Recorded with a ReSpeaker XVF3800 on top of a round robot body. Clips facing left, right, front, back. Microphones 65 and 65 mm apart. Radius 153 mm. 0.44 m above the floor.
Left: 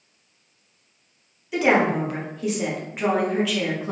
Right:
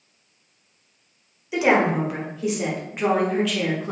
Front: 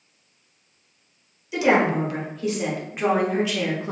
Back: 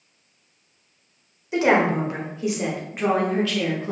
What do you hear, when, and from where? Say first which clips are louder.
1.5 s a woman speaking: even, back 1 dB; 170° right, 1.4 m; by 3.9 s 10° left, 1.2 m